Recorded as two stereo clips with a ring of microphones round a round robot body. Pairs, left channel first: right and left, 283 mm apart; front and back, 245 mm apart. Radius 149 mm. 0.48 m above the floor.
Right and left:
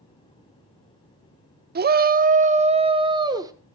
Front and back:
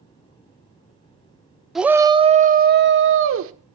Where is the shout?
90° left, 0.7 m; by 3.5 s 165° left, 1.1 m.